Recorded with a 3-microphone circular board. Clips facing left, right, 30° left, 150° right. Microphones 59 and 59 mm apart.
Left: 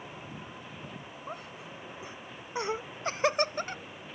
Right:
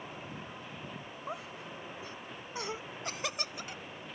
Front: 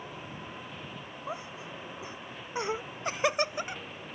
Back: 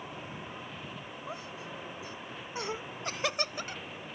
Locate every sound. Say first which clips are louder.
1.3 s laughter: right 1 dB, front 4 dB; 15° right; by 3.8 s 95° left